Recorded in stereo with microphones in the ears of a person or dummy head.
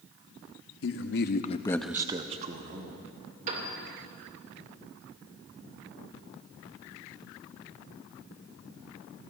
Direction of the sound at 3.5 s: 40° right (ahead or behind).